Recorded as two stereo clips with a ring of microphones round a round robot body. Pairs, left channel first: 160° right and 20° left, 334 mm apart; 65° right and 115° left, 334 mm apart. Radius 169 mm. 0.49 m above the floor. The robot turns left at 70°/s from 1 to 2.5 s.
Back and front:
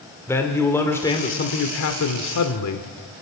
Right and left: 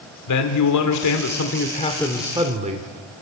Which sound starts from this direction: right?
A man speaking, at 0.3 s.